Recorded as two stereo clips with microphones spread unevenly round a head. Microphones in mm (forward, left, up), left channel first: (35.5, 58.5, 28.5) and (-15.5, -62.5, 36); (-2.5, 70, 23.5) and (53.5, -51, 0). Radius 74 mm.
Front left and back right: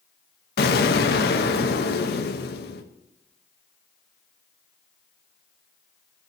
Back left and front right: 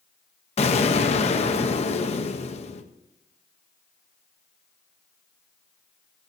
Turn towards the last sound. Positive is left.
turn(degrees=75)